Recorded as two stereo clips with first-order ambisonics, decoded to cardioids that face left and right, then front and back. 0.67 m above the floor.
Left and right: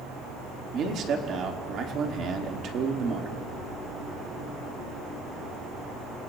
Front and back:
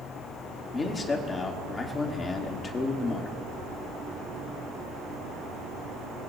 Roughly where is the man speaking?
Ahead right.